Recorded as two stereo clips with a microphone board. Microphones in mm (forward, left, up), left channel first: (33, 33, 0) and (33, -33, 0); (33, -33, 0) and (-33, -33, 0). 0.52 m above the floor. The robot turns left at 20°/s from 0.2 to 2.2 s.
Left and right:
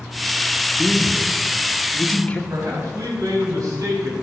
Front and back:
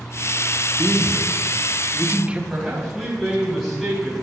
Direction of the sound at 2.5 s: 90° right.